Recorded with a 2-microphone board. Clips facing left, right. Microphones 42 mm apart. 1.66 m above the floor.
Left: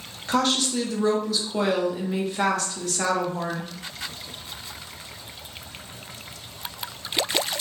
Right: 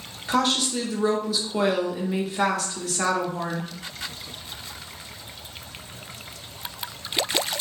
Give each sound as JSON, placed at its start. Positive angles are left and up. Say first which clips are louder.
{"t": 0.3, "sound": "a woman speaking", "louder": "even", "side_deg": -5, "distance_m": 0.9}